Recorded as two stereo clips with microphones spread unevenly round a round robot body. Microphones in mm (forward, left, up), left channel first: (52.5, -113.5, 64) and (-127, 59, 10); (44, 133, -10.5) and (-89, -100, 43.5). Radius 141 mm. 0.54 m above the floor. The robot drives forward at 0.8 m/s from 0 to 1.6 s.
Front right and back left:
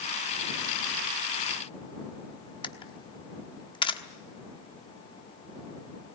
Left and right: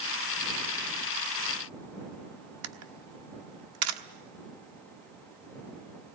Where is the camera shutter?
120° right, 1.3 m.